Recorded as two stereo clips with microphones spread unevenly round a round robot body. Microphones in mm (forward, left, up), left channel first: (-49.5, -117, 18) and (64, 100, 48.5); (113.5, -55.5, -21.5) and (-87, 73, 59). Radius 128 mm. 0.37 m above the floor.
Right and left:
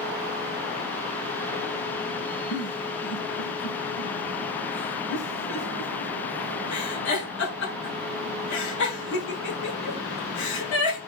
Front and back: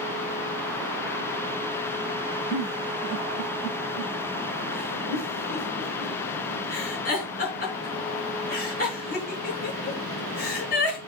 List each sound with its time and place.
2.5 s a giggle: 80° right, 4 m